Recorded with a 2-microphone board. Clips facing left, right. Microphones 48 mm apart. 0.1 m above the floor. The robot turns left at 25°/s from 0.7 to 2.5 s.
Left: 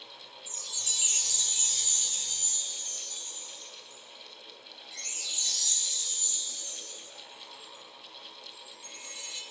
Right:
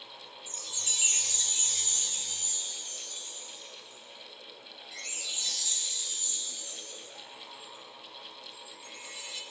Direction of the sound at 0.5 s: 115° right.